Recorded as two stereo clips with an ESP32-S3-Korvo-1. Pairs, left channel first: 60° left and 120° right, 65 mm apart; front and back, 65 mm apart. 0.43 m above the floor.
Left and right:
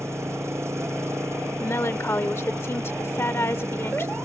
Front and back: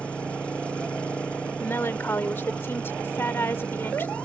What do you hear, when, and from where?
0.0 s an engine running: 75° right
1.6 s a woman speaking: 35° left